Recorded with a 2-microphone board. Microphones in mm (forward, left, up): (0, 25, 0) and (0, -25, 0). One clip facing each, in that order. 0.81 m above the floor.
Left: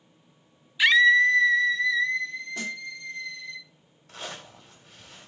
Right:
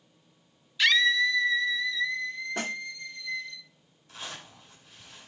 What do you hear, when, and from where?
0.8 s a scream: 15° left (ahead or behind), 0.5 m; by 3.6 s 45° left (ahead or behind), 2 m
2.6 s a snare drum: 40° right (ahead or behind), 0.7 m
4.1 s a zipper: 60° left (ahead or behind), 3.5 m